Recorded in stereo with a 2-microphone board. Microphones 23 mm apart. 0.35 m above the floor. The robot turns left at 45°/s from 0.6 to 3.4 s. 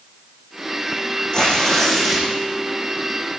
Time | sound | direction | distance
1.3 | tearing paper | 35° left | 7 m